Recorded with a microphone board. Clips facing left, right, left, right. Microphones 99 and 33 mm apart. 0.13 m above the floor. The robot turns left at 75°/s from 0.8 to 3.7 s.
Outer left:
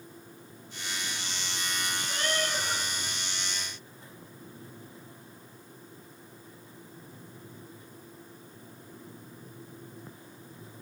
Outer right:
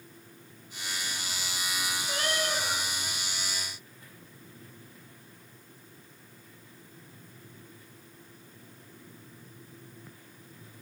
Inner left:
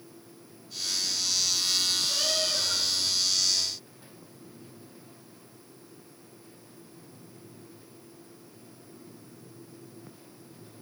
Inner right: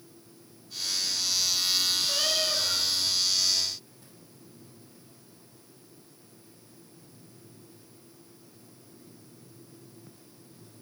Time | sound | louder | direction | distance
2.1 | a cat meowing | outer right 1 dB, inner right 1 dB | 130° right | 2.0 m